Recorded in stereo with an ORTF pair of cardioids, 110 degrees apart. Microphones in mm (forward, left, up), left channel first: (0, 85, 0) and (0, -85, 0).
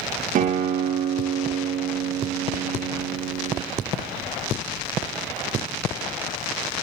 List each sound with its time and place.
0.3 s a guitar: 55° right, 0.8 m